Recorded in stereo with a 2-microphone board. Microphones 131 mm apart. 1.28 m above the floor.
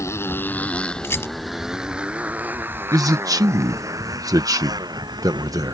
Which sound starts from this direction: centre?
A rattle, at 1.0 s.